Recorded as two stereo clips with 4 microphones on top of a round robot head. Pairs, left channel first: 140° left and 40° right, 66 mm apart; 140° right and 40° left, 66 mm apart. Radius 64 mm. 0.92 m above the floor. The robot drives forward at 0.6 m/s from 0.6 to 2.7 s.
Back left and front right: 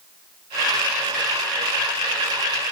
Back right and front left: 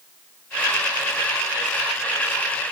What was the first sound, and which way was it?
Only background noise.